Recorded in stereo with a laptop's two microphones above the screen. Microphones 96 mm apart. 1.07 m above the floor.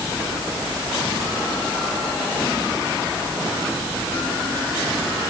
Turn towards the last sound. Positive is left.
No sound to turn to.